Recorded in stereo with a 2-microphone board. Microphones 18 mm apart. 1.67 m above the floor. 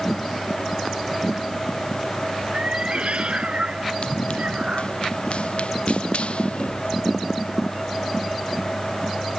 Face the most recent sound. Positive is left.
turn(degrees=75)  # may be behind; listen again after turning